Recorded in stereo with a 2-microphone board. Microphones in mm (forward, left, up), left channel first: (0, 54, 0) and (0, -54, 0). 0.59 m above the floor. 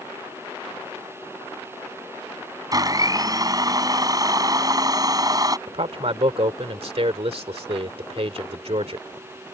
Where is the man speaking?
65° right (ahead or behind).